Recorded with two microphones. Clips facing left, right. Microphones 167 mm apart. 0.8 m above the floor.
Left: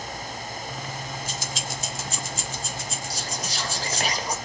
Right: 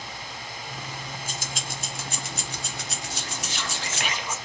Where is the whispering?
40° left (ahead or behind), 0.9 m.